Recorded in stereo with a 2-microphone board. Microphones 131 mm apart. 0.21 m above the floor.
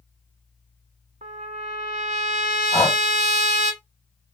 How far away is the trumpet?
About 0.5 m.